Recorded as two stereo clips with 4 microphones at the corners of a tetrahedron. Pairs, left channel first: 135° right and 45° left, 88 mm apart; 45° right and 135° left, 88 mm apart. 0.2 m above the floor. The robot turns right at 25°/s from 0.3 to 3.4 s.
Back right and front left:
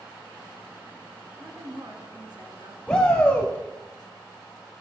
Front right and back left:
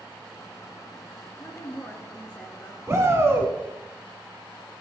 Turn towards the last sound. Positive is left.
turn(degrees=165)